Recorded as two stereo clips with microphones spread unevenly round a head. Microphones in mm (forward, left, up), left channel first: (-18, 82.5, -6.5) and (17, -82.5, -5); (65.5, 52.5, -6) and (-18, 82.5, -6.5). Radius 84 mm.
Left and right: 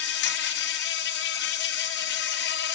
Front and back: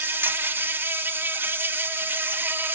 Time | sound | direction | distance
0.0 | an insect | 95° left | 1.0 m